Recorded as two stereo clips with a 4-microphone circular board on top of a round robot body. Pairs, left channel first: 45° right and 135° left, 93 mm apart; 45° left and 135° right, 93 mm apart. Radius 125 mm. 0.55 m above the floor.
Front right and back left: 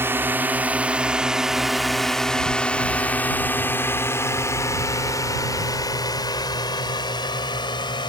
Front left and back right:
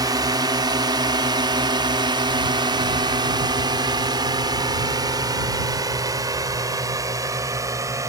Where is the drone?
165° right; by 8.1 s 80° right.